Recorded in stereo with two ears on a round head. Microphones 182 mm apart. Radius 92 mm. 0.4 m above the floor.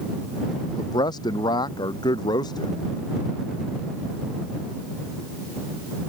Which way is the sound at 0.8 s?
20° left (ahead or behind).